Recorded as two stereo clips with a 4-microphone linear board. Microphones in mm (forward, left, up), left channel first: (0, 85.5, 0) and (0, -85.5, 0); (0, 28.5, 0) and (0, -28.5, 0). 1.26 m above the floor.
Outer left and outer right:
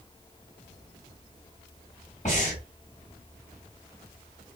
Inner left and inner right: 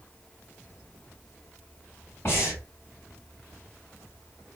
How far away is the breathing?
About 1.6 m.